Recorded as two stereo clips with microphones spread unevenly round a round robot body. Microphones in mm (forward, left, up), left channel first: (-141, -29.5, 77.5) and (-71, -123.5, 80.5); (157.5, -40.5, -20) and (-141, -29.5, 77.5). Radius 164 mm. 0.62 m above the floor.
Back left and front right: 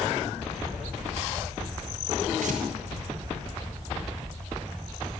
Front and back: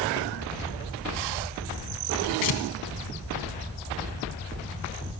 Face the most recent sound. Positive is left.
turn(degrees=-25)